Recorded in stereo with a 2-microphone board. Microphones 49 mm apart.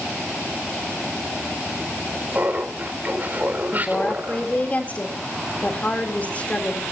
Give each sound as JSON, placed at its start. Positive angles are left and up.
{"t": 2.3, "sound": "laughter", "side_deg": -35, "distance_m": 4.0}
{"t": 3.7, "sound": "a woman speaking", "side_deg": 30, "distance_m": 3.5}